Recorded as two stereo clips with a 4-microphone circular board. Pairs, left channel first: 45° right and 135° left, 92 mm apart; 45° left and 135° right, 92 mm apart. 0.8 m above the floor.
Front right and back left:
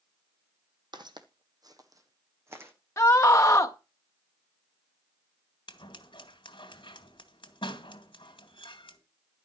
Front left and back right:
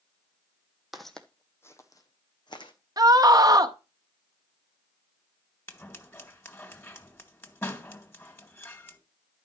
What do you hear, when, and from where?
0.9 s footsteps: 140° left, 1.3 m; by 2.7 s 70° left, 2.0 m
3.0 s a scream: 95° right, 0.6 m
5.7 s scissors: 20° right, 2 m